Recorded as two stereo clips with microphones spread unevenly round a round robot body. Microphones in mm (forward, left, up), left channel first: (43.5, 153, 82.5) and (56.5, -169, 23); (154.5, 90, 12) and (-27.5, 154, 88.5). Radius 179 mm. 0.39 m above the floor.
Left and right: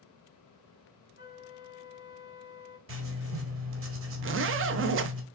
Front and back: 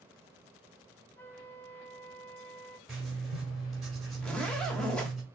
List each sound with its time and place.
1.2 s a flute: 30° left, 1.1 m
2.9 s writing: 90° right, 1.2 m
4.2 s a zipper: 80° right, 0.5 m